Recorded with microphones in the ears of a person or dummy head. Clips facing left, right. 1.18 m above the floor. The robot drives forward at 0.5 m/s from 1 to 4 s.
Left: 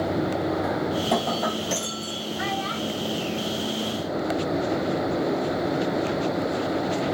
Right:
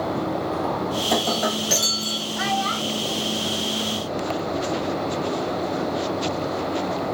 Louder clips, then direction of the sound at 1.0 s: Right 1 dB; 30° right (ahead or behind).